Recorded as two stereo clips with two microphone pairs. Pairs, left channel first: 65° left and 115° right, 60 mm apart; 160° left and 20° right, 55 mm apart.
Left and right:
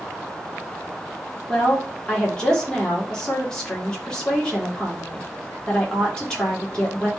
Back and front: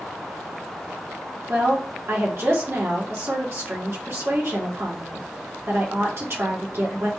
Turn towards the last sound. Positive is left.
turn(degrees=-5)